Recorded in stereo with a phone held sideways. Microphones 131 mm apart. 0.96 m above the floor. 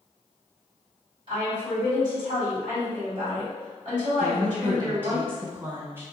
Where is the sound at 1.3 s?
35° right (ahead or behind), 2.0 m.